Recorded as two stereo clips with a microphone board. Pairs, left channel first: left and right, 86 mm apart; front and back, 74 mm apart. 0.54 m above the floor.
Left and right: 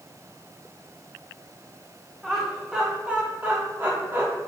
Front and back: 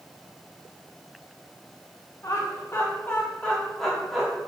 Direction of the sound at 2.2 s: 5° right.